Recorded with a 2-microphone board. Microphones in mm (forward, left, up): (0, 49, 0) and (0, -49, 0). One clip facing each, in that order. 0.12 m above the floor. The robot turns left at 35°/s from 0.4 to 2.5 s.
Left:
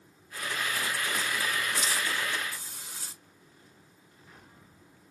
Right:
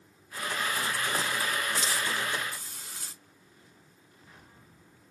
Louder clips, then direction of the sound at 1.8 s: Even; 15° left (ahead or behind).